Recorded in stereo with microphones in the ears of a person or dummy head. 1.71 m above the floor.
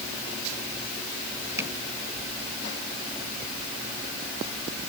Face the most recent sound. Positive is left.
turn(degrees=-15)  # may be behind; listen again after turning